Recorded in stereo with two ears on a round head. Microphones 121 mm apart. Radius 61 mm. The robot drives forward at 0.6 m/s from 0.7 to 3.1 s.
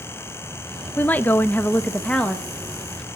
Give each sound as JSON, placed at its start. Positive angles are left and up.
{"t": 1.0, "sound": "a woman speaking", "side_deg": 10, "distance_m": 0.5}